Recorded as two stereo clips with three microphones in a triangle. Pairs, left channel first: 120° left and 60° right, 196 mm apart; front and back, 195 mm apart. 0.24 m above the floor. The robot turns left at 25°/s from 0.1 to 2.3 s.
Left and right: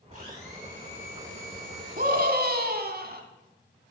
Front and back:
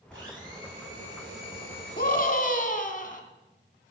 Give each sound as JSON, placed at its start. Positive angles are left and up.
{"t": 0.1, "sound": "a blender", "azimuth_deg": 180, "distance_m": 8.0}
{"t": 2.0, "sound": "a scream", "azimuth_deg": -25, "distance_m": 1.8}